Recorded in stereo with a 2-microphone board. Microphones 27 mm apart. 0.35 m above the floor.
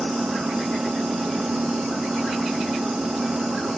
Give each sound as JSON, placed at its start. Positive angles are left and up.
{"t": 0.0, "sound": "an engine running", "side_deg": -50}